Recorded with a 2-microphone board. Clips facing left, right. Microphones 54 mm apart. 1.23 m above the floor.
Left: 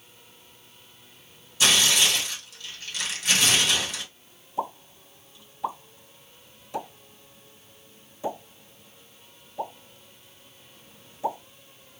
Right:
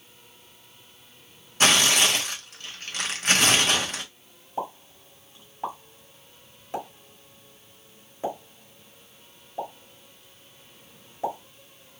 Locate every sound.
1.6 s tearing paper: 50° right (ahead or behind), 0.8 m
4.6 s a pop: 45° right (ahead or behind), 1.7 m